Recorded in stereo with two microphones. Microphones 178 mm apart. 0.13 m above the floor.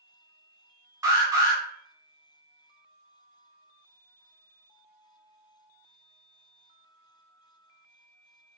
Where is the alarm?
15° right (ahead or behind), 1.1 m.